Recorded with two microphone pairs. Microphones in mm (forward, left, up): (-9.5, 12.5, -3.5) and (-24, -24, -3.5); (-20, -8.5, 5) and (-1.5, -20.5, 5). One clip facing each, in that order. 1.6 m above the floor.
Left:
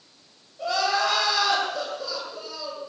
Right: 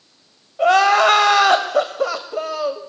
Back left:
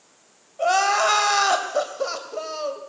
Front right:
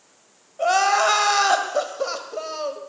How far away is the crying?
About 2.5 m.